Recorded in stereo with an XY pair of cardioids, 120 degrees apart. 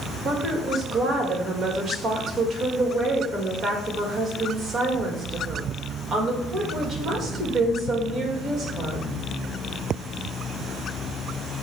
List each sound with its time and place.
0.2 s a woman speaking: 40° right, 2 m